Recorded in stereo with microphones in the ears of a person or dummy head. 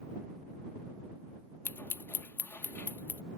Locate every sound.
1.6 s scissors: 5° left (ahead or behind)